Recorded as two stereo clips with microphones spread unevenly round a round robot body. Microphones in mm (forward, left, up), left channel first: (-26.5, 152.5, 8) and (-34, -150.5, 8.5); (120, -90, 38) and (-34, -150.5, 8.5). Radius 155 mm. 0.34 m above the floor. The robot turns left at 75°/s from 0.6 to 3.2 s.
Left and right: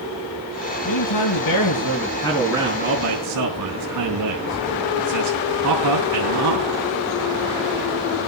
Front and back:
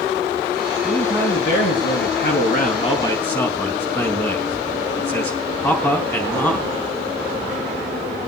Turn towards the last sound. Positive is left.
turn(degrees=-55)